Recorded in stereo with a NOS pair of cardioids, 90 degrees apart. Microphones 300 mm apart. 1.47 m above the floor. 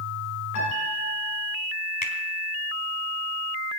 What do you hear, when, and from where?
0.6 s a piano: 65° left, 7.5 m
2.0 s a finger snap: 30° left, 4 m